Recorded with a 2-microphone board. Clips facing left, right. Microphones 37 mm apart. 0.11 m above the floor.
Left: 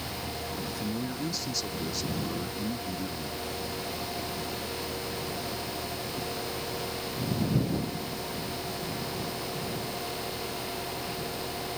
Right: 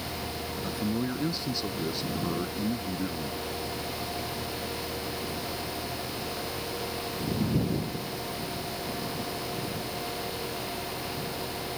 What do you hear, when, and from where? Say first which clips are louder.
0.6 s a man speaking: right 6 dB; 25° right (ahead or behind); by 3.5 s 20° right (ahead or behind)